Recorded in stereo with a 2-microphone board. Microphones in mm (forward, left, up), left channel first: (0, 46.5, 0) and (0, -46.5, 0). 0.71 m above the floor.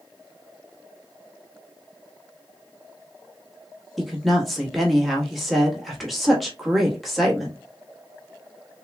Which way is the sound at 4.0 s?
Centre (ahead or behind).